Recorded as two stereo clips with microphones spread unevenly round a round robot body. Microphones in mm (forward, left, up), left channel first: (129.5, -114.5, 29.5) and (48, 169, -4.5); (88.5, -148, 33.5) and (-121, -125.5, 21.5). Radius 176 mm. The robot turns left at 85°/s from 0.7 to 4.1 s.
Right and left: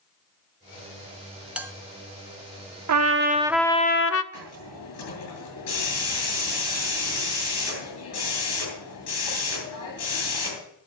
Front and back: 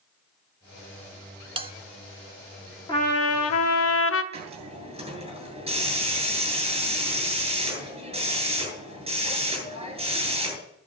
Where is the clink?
No clink in this recording.